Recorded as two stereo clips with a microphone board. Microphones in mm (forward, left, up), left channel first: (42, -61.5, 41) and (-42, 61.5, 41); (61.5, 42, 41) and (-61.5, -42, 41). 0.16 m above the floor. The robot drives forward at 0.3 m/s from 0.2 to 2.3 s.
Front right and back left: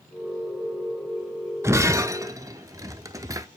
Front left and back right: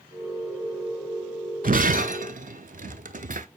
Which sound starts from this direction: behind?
Breaking glass, at 1.6 s.